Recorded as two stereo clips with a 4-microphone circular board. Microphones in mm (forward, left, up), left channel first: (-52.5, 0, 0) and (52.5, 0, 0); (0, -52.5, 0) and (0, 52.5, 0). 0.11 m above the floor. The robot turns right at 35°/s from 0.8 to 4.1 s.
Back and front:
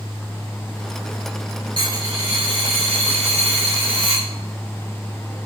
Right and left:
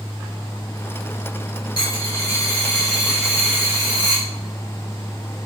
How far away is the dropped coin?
About 2.5 m.